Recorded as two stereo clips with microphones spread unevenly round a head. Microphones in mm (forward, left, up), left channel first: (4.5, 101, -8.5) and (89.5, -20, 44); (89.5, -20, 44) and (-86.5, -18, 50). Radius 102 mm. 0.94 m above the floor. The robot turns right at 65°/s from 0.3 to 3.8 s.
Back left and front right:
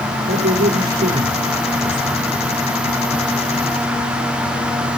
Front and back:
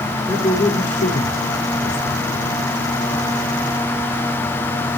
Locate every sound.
0.3 s a man speaking: 80° right, 3 m; by 2.2 s 45° left, 3 m